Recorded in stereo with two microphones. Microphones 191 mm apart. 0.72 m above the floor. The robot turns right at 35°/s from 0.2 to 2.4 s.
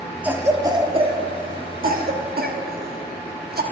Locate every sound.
0.2 s a cough: 10° right (ahead or behind), 1.2 m; by 3.6 s 60° right (ahead or behind), 1.2 m